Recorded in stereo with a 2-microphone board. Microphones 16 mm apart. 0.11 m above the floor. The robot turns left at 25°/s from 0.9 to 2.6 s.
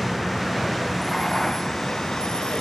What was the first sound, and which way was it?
A vehicle, 15° left (ahead or behind).